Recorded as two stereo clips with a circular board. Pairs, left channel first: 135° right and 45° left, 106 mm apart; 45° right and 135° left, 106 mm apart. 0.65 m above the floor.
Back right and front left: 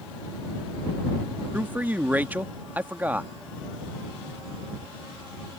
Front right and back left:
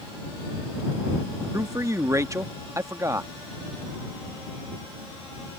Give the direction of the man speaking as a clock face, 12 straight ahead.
8 o'clock.